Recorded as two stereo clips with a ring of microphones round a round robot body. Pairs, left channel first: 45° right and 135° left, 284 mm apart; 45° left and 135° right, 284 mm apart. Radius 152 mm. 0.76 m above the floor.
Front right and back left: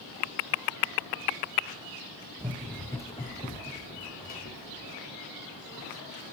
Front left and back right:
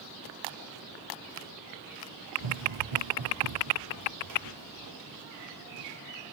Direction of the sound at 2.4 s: 145° right.